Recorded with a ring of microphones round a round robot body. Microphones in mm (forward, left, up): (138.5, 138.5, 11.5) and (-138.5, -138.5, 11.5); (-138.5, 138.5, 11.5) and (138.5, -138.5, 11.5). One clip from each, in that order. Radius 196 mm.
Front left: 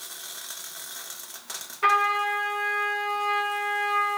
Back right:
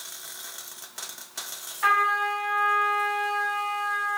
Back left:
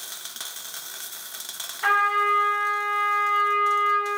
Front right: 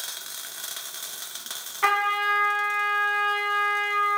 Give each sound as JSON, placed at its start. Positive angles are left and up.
{"t": 1.8, "sound": "a trumpet", "azimuth_deg": -40, "distance_m": 1.5}